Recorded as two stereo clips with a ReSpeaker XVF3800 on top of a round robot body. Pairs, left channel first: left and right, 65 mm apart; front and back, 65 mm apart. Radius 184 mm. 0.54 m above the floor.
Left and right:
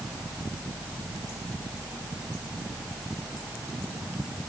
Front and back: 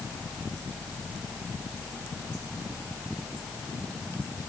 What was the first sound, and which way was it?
Only background noise.